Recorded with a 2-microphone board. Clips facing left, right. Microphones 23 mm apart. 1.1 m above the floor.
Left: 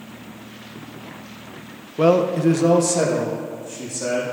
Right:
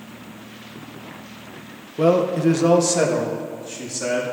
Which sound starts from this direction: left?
A man speaking, at 2.0 s.